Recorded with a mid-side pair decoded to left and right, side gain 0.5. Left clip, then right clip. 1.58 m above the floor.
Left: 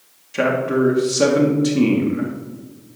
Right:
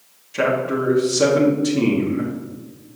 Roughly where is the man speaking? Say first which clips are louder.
Left 1 dB; ahead.